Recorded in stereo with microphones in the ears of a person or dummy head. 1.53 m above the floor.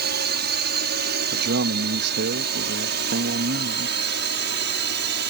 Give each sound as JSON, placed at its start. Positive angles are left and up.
{"t": 0.0, "sound": "a drone", "side_deg": -55}
{"t": 1.3, "sound": "a man speaking", "side_deg": -60}